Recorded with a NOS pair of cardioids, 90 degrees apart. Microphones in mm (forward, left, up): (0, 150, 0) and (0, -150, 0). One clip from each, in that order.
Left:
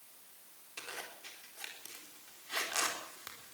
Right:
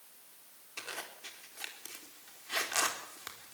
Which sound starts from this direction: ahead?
A zipper, at 0.8 s.